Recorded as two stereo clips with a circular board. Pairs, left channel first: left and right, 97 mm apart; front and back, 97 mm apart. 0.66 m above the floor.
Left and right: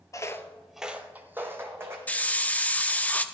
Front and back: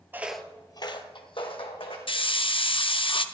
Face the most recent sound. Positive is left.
turn(degrees=15)